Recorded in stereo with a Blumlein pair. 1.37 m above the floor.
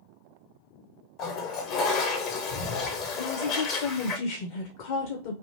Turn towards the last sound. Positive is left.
turn(degrees=50)